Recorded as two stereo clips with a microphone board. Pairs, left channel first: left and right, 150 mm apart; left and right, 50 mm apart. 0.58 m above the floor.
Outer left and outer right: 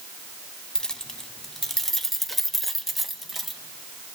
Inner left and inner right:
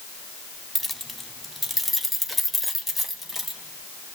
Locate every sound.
0.8 s keys jangling: 5° left (ahead or behind), 0.9 m; by 3.6 s centre (ahead or behind), 2 m